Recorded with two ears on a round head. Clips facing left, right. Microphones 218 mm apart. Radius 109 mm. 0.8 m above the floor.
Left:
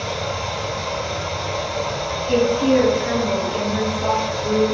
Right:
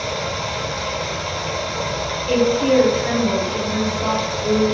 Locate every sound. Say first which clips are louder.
0.0 s running water: even; 50° right (ahead or behind), 1.1 m
2.3 s a woman speaking: even; 40° right (ahead or behind), 1.6 m